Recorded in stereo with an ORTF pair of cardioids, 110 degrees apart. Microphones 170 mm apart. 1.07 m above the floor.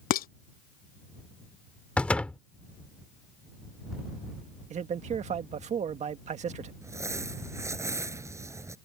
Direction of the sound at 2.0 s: 5° left.